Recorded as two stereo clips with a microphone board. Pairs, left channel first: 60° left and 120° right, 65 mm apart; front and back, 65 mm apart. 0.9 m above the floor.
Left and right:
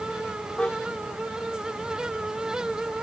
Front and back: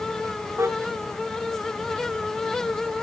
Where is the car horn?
135° left; by 3.0 s 125° left.